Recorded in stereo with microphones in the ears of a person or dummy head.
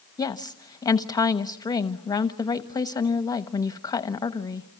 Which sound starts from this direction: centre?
A woman speaking, at 0.2 s.